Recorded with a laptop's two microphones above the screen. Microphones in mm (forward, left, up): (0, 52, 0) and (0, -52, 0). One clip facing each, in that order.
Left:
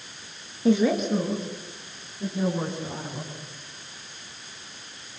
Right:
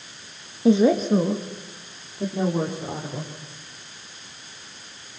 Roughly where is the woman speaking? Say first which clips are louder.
Right 4 dB; right.